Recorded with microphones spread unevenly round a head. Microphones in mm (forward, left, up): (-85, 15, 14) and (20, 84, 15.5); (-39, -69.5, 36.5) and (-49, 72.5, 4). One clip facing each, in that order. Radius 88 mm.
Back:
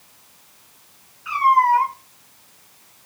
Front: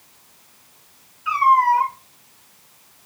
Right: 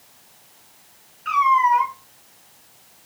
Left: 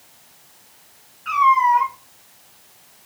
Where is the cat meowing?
30° right, 1.8 m.